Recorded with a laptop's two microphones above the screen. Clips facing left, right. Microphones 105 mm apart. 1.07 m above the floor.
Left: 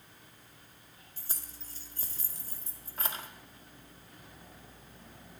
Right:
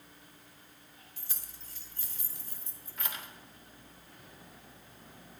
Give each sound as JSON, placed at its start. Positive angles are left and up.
{"t": 1.2, "sound": "keys jangling", "side_deg": 35, "distance_m": 1.7}